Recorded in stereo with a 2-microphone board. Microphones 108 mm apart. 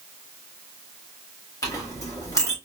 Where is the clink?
30° left (ahead or behind), 1.4 m.